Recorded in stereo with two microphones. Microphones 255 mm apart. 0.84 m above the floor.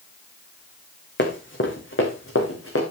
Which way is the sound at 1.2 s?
45° left (ahead or behind).